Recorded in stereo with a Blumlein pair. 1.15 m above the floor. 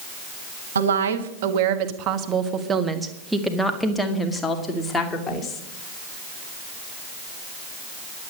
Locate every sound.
0.8 s a woman speaking: 65° right, 1.7 m; by 5.6 s 20° left, 3 m